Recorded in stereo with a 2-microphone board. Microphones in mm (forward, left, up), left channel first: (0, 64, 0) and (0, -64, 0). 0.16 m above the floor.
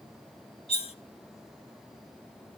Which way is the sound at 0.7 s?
50° left (ahead or behind).